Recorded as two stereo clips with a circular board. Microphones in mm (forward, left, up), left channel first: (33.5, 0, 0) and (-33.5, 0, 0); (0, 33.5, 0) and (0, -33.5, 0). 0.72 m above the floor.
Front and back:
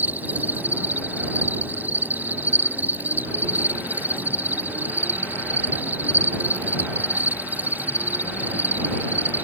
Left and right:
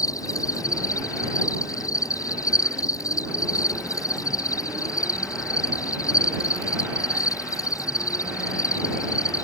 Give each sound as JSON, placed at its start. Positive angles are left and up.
{"t": 0.0, "sound": "an insect", "azimuth_deg": 115}